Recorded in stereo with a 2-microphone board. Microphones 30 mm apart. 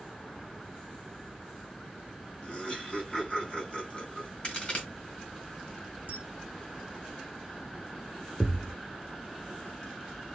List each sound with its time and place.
2.4 s laughter: 30° left (ahead or behind), 4.5 m
4.4 s a crack: 35° left (ahead or behind), 2.5 m
6.1 s a camera shutter: 65° right (ahead or behind), 0.7 m
8.4 s a thud: 25° left (ahead or behind), 0.5 m